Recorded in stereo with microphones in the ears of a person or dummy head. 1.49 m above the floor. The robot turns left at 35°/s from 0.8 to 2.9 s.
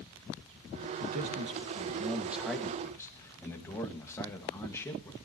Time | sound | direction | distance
1.0 | a man speaking | 125° right | 2 m